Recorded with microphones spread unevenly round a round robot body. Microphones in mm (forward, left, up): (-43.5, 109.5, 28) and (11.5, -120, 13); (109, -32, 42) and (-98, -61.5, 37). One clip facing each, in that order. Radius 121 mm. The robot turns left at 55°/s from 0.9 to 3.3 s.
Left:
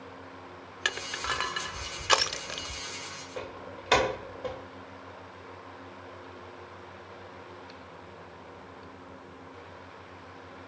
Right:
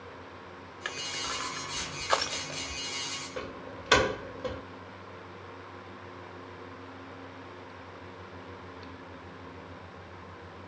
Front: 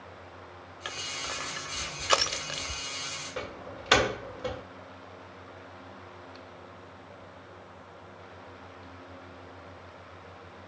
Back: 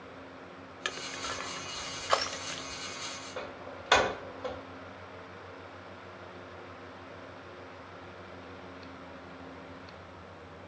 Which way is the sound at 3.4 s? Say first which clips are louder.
Even, front 3 dB; 20° right.